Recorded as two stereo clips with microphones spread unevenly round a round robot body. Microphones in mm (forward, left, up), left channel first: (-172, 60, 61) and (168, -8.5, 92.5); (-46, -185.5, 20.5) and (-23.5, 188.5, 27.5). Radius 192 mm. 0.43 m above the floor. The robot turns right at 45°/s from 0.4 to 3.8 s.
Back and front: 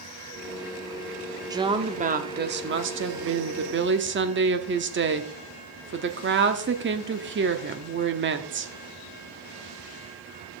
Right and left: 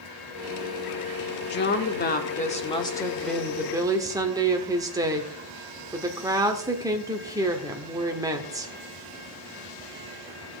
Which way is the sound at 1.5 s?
90° right.